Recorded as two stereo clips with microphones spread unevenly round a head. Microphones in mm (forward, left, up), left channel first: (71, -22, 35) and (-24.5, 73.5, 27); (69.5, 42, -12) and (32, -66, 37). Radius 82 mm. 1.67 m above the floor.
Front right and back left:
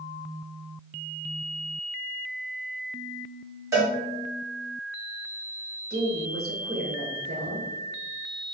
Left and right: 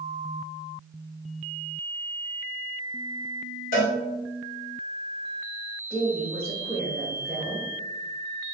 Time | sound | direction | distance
3.7 | a cowbell | 70° left | 1.9 m
5.9 | a woman speaking | 160° left | 1.5 m